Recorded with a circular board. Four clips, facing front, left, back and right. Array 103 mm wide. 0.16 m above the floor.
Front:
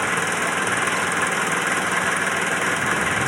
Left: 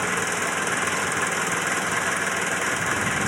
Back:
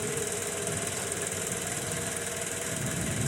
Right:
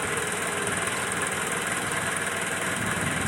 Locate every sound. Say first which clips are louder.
0.0 s an engine running: left 4 dB, front 10 dB; 20° left